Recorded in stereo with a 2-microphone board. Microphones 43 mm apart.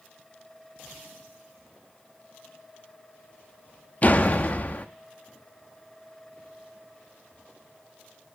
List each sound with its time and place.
4.0 s a door slam: 40° left (ahead or behind), 1.2 m